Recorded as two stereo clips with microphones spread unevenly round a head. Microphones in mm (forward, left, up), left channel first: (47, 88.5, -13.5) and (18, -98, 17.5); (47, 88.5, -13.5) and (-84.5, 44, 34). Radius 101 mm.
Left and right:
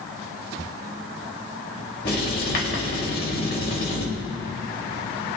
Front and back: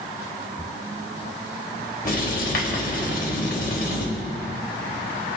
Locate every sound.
2.0 s writing: 40° left, 3.5 m